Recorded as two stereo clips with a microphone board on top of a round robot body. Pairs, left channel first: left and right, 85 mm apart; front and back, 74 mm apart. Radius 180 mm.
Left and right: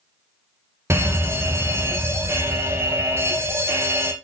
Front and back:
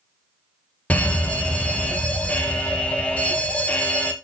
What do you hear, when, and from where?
0.9 s a fire alarm: 60° right, 2 m